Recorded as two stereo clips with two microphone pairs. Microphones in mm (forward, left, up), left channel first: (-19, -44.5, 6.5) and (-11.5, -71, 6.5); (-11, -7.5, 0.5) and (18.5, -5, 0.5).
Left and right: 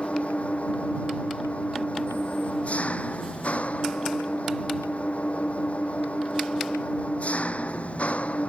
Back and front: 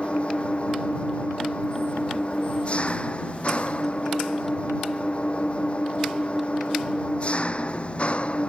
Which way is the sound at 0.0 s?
135° left.